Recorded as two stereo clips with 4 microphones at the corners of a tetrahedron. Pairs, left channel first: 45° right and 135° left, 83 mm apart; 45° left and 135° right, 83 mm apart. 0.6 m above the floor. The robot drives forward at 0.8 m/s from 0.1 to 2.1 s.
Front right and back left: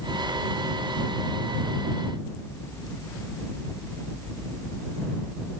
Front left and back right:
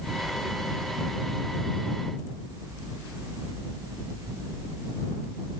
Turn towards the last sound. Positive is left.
No sound to turn to.